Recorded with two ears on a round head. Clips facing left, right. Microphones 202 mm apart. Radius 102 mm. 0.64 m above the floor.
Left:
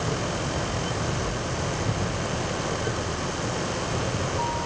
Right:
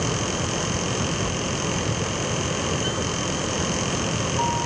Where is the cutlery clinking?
No cutlery clinking in this recording.